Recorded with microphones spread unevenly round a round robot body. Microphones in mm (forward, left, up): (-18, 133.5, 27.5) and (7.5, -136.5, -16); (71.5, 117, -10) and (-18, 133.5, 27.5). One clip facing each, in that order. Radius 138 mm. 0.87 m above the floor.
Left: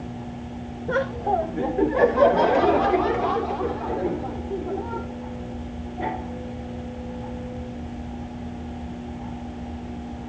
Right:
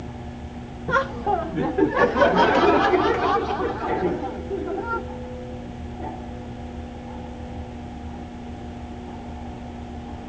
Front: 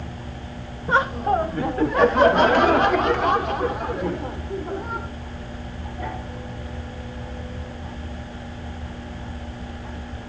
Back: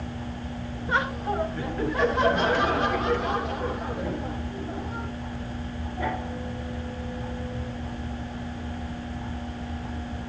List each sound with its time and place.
0.9 s laughter: 25° right, 0.9 m